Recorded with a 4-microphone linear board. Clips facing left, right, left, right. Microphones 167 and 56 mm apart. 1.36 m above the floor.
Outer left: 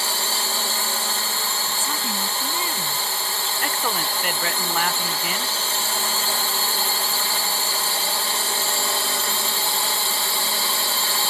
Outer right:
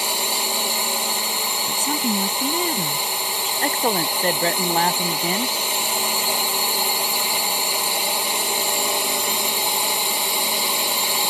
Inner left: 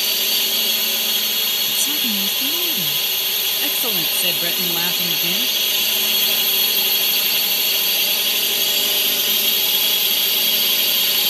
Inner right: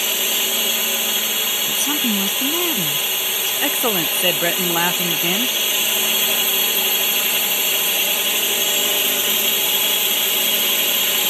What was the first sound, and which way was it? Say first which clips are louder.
A drone: outer right 2 dB, inner right 1 dB; 20° right (ahead or behind).